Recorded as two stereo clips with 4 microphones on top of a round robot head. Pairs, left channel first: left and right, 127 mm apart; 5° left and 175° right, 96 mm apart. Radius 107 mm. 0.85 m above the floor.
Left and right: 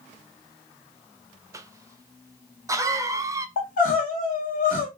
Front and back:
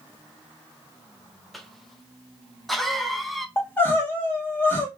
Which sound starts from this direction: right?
A cough, at 1.5 s.